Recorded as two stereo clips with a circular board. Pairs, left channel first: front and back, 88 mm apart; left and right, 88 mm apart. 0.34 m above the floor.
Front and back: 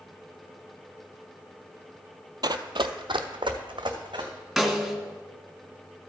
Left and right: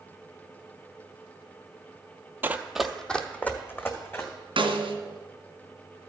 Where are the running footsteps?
150° right, 0.6 m; by 4.3 s 150° left, 1.7 m.